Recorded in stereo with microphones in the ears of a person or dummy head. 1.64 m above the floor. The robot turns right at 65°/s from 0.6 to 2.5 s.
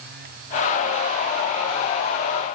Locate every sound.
Only background noise.